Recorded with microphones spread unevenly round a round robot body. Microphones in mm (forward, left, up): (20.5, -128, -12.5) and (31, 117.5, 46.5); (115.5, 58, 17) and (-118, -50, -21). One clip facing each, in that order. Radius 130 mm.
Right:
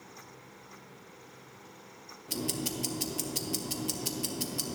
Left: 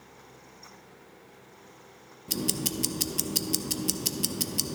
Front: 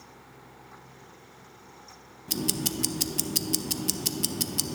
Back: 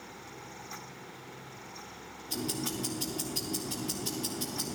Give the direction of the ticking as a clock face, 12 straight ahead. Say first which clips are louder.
Left 3 dB, front 4 dB; 11 o'clock.